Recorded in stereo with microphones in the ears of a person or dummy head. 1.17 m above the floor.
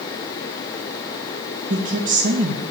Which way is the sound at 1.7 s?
40° right (ahead or behind).